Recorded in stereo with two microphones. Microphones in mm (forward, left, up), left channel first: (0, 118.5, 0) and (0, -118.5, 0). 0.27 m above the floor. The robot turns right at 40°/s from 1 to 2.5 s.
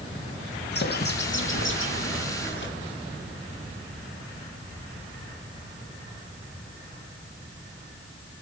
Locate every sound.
0.7 s a bird: 55° left, 2 m; by 2.7 s 115° left, 2 m